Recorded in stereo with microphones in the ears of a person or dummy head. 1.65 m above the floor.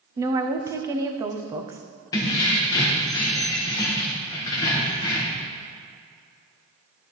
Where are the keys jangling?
20° left (ahead or behind), 0.8 m.